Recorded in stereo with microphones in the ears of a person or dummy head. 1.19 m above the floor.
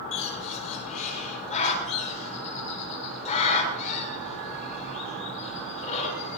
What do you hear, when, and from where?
0.1 s a bird: 40° left (ahead or behind), 4.5 m